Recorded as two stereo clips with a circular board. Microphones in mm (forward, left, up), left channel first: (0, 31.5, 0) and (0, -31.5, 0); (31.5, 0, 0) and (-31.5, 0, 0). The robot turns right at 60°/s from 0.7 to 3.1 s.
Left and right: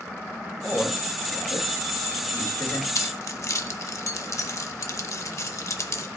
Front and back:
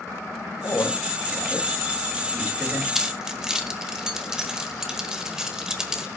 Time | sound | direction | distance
0.6 | a man speaking | 15° left | 3.5 m
3.0 | keys jangling | 90° left | 1.2 m